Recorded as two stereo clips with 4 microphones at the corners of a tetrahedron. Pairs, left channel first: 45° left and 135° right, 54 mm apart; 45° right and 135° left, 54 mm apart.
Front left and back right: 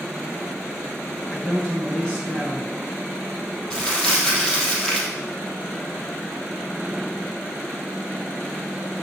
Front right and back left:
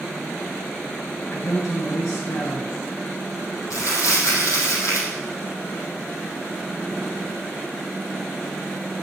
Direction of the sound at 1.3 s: 25° right.